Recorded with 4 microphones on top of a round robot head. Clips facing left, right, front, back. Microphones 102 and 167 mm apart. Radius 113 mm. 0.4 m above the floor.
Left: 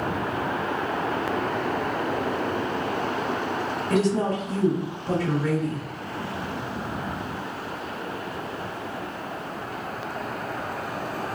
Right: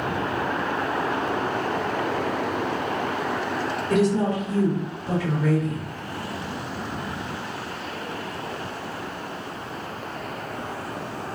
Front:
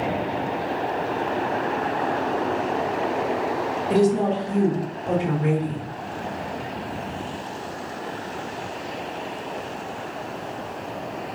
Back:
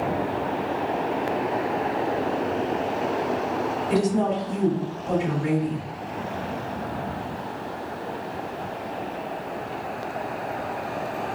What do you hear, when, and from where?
3.9 s a woman speaking: straight ahead, 1.9 m